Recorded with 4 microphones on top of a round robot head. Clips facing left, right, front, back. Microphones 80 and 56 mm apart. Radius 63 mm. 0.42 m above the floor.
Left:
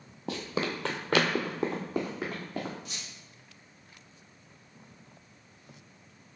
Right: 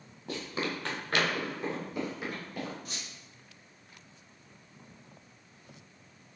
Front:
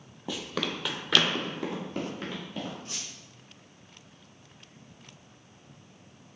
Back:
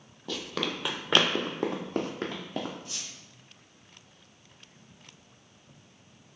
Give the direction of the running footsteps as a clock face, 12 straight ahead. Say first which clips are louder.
Left 3 dB, even; 9 o'clock.